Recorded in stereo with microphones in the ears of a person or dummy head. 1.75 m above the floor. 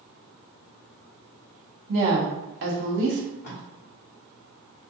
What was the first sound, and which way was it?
A woman speaking, 55° right (ahead or behind).